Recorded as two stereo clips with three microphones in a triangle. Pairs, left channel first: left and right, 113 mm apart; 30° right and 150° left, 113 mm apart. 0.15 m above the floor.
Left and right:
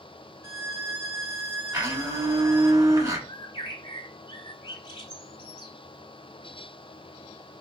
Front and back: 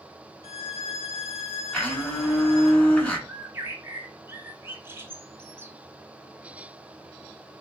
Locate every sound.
0.4 s a violin: 25° right, 0.6 m
1.7 s a blender: 100° right, 1.3 m
3.3 s a bird: 90° left, 0.5 m